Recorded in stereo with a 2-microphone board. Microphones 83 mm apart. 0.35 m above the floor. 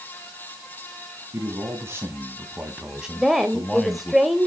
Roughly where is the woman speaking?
Centre.